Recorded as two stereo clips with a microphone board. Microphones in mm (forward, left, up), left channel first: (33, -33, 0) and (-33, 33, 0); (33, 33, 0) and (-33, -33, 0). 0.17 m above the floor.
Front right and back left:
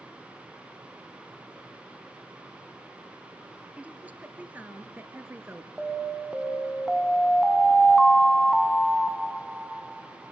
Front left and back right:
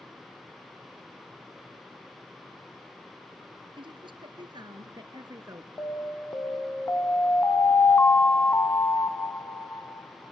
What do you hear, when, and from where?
3.8 s a woman speaking: 150° right, 2.5 m; by 5.7 s 170° right, 1.7 m
5.8 s an alarm: 50° left, 0.9 m